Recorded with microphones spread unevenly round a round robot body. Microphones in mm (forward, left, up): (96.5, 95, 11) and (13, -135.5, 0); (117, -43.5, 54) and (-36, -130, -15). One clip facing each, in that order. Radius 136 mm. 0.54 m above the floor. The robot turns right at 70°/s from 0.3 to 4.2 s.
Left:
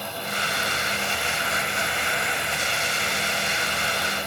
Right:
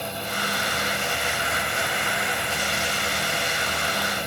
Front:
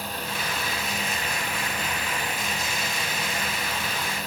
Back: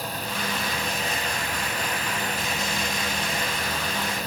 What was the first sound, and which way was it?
Only background noise.